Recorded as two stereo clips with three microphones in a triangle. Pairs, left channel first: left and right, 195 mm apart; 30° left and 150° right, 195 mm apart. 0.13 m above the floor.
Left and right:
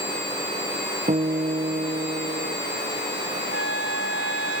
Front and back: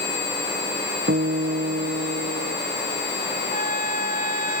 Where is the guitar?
140° right.